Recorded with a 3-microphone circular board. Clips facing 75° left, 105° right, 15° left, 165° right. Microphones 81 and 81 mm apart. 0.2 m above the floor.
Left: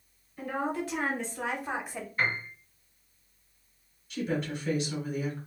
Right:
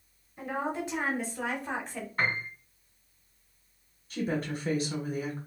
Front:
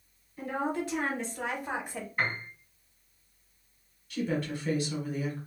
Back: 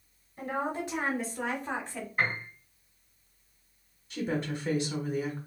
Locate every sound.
0.4 s a woman speaking: 140° right, 1.2 m; by 2.1 s 30° left, 1.0 m
2.2 s a piano: 90° right, 2.5 m
4.1 s a woman speaking: 115° right, 1.2 m